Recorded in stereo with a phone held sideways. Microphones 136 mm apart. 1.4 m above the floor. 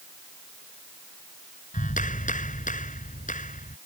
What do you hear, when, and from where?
1.7 s a clap: 70° left (ahead or behind)